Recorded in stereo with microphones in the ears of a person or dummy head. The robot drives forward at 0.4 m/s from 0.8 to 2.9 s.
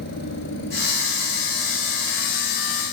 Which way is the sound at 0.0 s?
60° left (ahead or behind).